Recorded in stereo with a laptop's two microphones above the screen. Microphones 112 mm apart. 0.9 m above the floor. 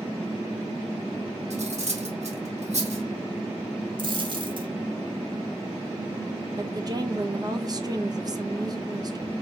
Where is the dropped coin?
45° right (ahead or behind), 0.8 m.